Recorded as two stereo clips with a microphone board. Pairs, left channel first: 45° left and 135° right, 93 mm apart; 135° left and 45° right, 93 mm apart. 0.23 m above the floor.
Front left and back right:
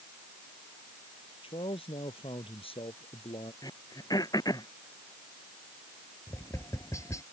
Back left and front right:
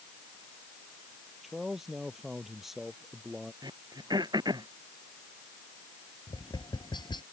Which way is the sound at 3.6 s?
Straight ahead.